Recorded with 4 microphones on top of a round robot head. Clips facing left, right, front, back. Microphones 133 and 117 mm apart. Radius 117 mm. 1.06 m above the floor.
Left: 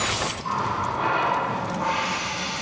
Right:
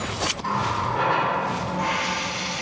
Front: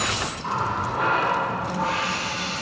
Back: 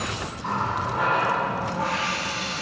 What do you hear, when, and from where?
0.4 s a running tap: 90° right, 2.5 m